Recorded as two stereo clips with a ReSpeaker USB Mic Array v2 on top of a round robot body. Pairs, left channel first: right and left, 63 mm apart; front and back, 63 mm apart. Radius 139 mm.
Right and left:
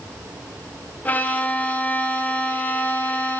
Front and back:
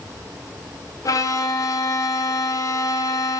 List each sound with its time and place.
1.1 s a violin: 25° right, 0.8 m